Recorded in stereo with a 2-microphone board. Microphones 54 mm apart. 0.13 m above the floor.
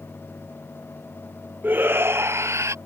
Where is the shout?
35° right (ahead or behind); by 2.8 s 60° right (ahead or behind).